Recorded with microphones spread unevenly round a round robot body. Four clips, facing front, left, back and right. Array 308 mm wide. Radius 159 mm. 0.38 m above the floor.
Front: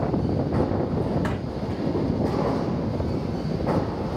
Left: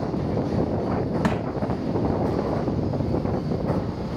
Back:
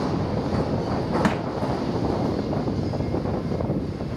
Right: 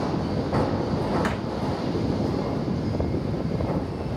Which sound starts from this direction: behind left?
Crushing, at 1.2 s.